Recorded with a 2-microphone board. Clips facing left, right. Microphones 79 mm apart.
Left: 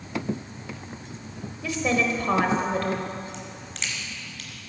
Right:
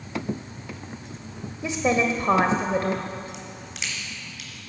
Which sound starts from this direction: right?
A woman speaking, at 1.6 s.